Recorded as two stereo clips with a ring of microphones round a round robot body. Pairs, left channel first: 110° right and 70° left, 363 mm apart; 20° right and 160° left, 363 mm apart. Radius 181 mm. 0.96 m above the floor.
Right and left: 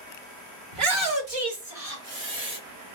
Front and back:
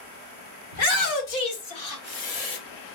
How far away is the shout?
About 2 m.